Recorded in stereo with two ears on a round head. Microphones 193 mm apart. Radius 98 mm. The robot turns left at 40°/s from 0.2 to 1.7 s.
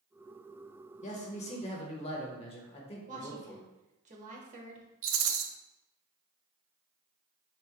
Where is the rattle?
70° right (ahead or behind), 0.6 m.